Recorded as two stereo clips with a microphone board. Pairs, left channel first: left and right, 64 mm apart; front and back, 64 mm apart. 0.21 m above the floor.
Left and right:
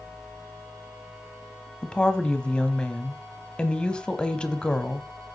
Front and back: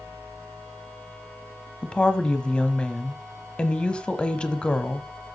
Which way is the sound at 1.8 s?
45° left.